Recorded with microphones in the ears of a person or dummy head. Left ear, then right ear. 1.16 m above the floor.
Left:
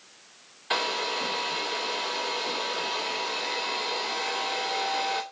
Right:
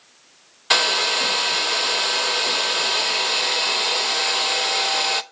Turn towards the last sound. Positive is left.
turn(degrees=-35)  # may be behind; listen again after turning